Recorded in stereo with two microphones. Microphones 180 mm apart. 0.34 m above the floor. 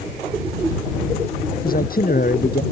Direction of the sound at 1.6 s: 55° left (ahead or behind).